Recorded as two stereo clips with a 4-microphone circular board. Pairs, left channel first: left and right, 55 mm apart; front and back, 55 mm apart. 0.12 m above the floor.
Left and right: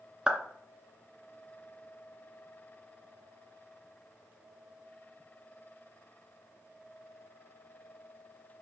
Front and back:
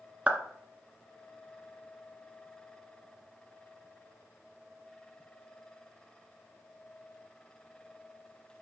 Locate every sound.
0.3 s a clap: 140° right, 1.0 m